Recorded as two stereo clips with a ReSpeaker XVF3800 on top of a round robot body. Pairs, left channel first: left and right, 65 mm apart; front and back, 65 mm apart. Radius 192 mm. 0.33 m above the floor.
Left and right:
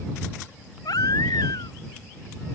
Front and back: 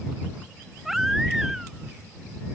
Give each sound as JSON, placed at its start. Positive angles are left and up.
{"t": 0.8, "sound": "a baby crying", "azimuth_deg": 95}